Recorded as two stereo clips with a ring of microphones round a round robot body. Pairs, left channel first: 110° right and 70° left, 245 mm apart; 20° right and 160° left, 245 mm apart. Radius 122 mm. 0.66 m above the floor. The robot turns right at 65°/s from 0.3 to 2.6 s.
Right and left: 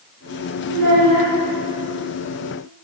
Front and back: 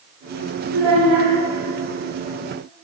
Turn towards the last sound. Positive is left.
turn(degrees=-160)